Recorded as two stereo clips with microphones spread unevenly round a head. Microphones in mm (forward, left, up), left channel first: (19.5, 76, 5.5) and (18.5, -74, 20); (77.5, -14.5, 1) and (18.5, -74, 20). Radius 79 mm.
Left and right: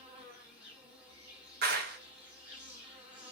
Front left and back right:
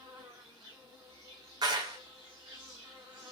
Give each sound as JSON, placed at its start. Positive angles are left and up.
{"t": 0.0, "sound": "an insect", "azimuth_deg": -175, "distance_m": 1.2}
{"t": 1.6, "sound": "a clap", "azimuth_deg": -115, "distance_m": 0.6}